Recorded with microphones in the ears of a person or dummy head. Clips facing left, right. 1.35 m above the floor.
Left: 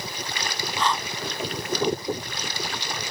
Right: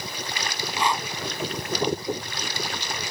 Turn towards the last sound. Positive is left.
turn(degrees=-15)  # may be behind; listen again after turning